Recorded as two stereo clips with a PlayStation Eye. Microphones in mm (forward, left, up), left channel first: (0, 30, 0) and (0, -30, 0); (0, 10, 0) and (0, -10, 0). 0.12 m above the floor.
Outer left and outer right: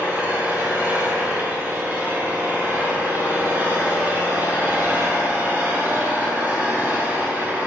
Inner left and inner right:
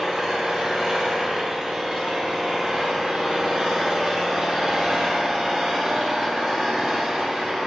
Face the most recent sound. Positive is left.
turn(degrees=-30)  # may be behind; listen again after turning